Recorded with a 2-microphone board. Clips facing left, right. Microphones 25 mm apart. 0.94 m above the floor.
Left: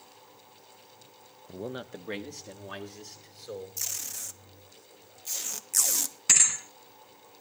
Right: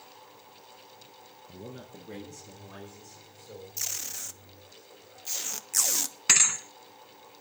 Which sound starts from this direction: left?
A man speaking, at 1.5 s.